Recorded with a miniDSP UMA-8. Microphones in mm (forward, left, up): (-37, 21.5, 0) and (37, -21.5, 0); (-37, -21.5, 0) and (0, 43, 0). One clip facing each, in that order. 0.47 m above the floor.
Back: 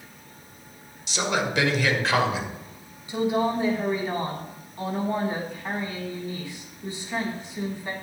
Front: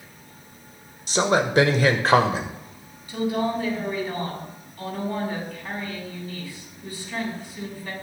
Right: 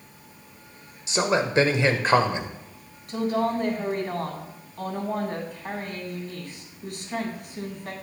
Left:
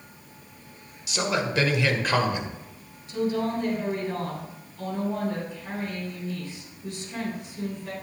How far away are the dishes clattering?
No dishes clattering in this recording.